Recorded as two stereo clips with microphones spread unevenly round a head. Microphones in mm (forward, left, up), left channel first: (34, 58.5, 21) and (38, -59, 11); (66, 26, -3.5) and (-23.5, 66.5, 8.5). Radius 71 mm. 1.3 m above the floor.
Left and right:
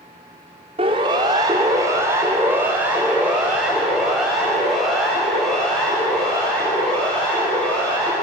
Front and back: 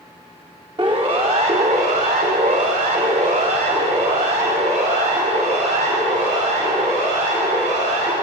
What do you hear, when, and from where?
0.8 s a siren: 140° right, 3 m; by 8.1 s 175° left, 11.5 m